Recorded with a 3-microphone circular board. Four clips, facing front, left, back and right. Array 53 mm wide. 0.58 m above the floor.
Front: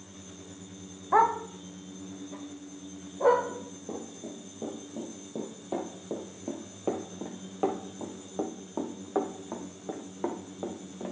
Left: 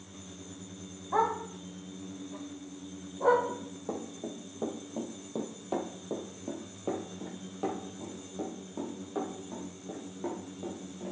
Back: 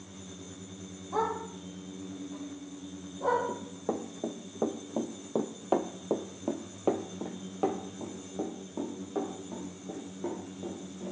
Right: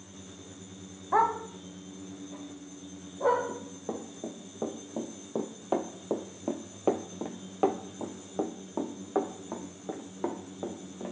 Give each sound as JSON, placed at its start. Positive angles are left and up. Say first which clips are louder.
{"t": 1.1, "sound": "a dog barking", "louder": "right 3 dB, front 8 dB", "azimuth_deg": -25, "distance_m": 1.1}
{"t": 3.5, "sound": "running footsteps", "louder": "even, back 4 dB", "azimuth_deg": -175, "distance_m": 2.0}